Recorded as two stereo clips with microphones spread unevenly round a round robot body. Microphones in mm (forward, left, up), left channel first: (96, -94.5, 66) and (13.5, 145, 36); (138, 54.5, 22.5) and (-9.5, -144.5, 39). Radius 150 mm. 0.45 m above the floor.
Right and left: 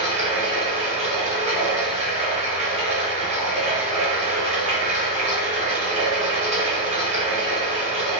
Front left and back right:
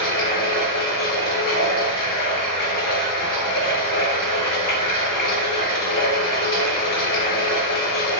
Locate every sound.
0.0 s running water: 45° left, 1.5 m